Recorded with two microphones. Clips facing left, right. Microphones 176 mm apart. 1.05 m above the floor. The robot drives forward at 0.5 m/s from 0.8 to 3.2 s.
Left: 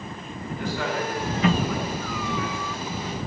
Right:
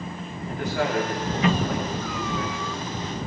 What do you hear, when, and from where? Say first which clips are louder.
0.4 s a man speaking: right 3 dB; 80° right, 6 m